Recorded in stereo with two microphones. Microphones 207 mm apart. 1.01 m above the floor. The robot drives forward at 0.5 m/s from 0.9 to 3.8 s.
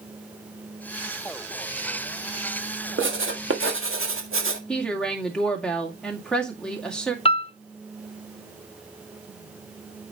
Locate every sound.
3.0 s writing: 70° right (ahead or behind), 1.4 m; by 4.6 s 85° right, 1.4 m
4.7 s a woman speaking: 5° left (ahead or behind), 2 m
7.2 s a piano: 30° left (ahead or behind), 0.5 m